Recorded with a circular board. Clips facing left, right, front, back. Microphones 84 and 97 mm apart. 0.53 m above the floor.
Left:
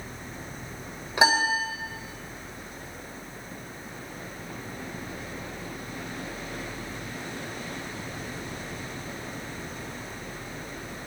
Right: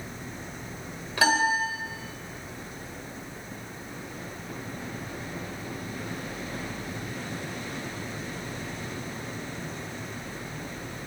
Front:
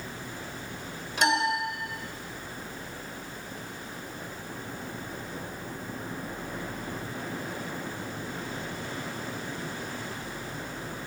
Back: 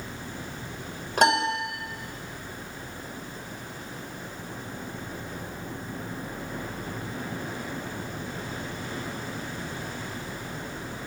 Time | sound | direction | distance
1.2 | a piano | 155° left | 1.6 m